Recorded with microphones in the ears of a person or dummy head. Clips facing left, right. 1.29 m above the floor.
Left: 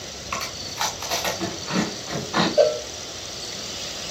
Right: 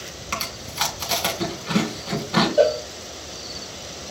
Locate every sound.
0.3 s chewing: 25° right (ahead or behind), 2.5 m
2.6 s a cowbell: 10° right (ahead or behind), 1.6 m